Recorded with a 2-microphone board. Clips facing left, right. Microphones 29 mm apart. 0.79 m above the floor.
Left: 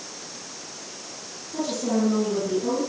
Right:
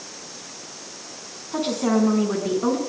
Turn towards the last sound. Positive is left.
turn(degrees=-60)  # may be behind; listen again after turning